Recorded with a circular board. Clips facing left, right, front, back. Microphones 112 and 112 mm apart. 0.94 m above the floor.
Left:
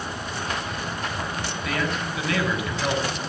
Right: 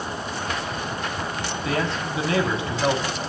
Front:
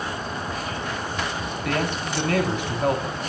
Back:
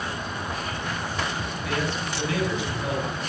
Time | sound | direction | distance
1.6 | a man speaking | 30° right | 6.5 m